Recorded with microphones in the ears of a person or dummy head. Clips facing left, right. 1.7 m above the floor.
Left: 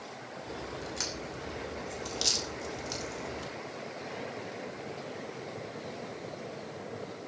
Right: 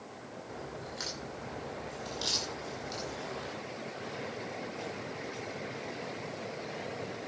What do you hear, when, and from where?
0.5 s a crack: 50° left (ahead or behind), 2.5 m